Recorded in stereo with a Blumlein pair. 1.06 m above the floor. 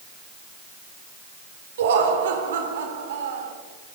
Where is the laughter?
60° right, 3.5 m.